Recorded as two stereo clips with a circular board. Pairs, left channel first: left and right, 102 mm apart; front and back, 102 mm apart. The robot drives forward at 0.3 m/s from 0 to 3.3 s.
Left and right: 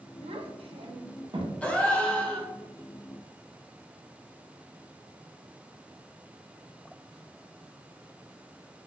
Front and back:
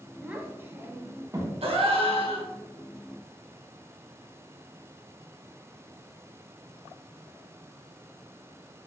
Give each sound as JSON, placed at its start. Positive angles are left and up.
{"t": 0.2, "sound": "a child speaking", "azimuth_deg": -100, "distance_m": 0.9}
{"t": 1.6, "sound": "a gasp", "azimuth_deg": 170, "distance_m": 1.0}